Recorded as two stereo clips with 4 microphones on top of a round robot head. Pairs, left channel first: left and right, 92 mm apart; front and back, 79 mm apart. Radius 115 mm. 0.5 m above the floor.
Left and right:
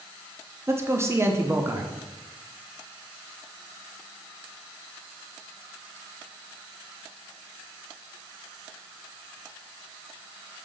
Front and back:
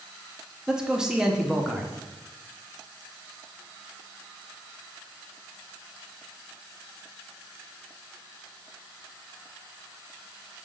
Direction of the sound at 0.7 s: 110° right.